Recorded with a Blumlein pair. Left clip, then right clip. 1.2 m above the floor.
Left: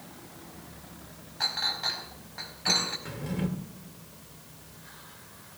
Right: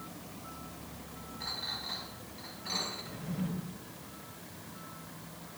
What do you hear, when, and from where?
1.4 s a clink: 45° left, 4.5 m
3.0 s a drawer: 40° left, 2.5 m